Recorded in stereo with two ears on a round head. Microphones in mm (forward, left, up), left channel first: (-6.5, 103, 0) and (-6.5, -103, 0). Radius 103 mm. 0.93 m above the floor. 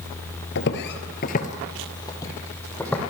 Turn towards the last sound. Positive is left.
turn(degrees=5)  # may be behind; listen again after turning